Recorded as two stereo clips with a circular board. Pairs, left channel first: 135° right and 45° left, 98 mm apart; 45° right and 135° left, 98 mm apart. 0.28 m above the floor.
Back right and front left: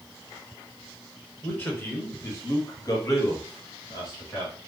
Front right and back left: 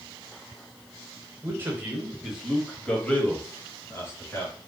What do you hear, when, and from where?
1.4 s a man speaking: 170° left, 1.1 m; by 4.5 s 100° right, 1.7 m